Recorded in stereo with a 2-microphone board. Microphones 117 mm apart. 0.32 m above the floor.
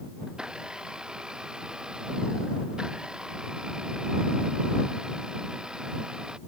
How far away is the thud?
I don't hear a thud.